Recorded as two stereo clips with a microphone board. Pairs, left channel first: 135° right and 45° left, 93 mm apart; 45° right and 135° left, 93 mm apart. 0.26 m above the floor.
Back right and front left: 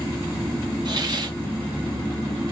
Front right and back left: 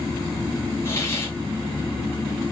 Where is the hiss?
10° left, 2 m.